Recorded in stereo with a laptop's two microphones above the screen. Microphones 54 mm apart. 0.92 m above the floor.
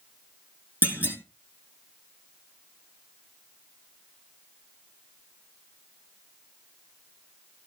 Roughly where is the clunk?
Right.